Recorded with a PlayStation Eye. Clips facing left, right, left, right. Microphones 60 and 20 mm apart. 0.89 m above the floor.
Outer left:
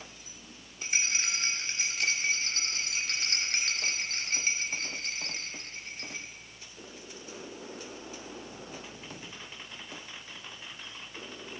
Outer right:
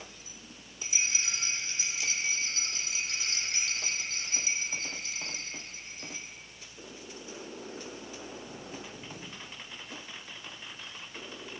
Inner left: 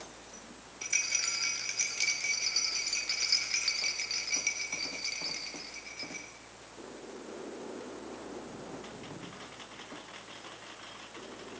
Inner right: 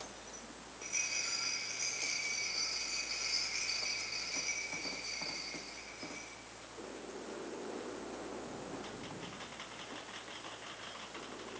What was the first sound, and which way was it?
A rattle, 60° left (ahead or behind).